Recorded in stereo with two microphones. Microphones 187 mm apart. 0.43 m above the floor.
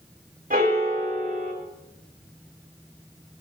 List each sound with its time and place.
0.5 s a piano: 50° right (ahead or behind), 4.5 m